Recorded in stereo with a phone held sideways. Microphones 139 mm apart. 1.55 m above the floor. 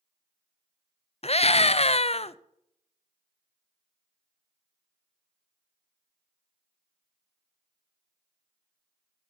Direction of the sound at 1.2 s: 45° left (ahead or behind).